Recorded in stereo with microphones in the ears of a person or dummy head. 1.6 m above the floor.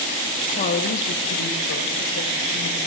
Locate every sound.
0.5 s a woman speaking: 35° left (ahead or behind), 1.0 m; by 2.8 s 70° left (ahead or behind), 3.5 m